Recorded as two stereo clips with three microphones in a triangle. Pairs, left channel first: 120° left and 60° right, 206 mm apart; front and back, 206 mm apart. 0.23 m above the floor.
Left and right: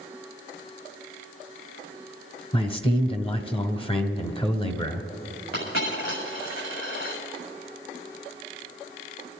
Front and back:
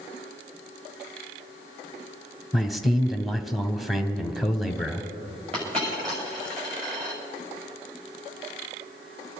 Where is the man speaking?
90° left, 1.1 m.